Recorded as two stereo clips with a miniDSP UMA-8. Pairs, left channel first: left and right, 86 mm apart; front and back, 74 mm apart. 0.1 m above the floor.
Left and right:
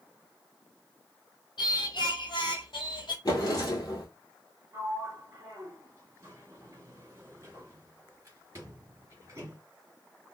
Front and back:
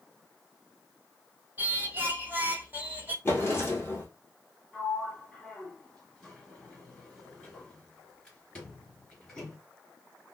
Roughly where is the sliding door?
Right.